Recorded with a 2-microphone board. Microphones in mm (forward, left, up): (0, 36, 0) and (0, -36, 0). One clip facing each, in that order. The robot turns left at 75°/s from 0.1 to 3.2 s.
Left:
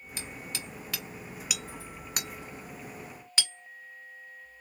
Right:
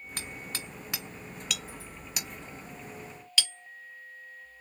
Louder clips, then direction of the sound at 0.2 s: Even; 55° right (ahead or behind).